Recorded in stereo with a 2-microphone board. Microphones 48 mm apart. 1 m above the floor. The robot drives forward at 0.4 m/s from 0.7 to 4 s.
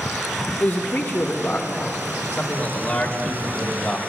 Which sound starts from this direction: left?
A man speaking, at 0.6 s.